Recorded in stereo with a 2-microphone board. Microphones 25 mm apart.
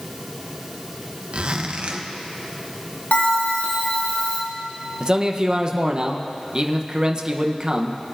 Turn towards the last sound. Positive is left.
turn(degrees=-35)  # may be behind; listen again after turning